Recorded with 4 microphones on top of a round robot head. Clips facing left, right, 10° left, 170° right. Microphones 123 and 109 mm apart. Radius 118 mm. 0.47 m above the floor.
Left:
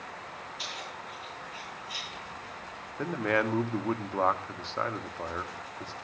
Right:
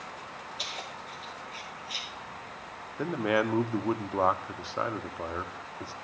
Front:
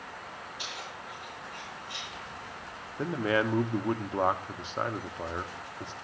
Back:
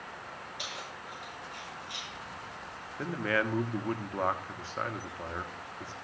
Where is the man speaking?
25° right, 1.1 m.